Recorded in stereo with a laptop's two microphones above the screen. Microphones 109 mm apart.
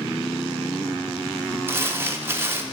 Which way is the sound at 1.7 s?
25° right (ahead or behind).